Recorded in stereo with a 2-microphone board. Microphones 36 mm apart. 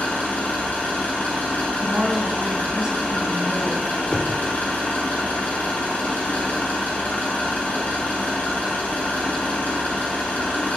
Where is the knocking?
40° left (ahead or behind), 1.3 m.